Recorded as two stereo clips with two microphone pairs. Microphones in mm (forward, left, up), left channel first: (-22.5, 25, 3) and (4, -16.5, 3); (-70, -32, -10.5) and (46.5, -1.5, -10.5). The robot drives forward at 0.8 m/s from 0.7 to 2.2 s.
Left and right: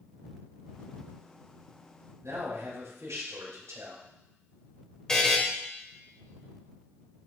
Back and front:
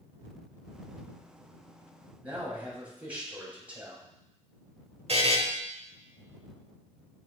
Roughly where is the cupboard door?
I don't hear a cupboard door.